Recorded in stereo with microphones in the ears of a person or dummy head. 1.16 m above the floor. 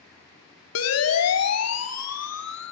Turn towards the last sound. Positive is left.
turn(degrees=80)